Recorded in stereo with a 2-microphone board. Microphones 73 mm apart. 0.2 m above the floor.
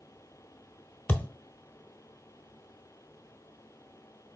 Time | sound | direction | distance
1.1 | a thud | 30° left (ahead or behind) | 0.6 m